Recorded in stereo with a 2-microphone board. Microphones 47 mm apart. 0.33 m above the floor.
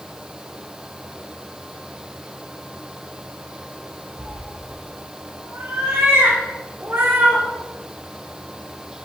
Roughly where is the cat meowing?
Right.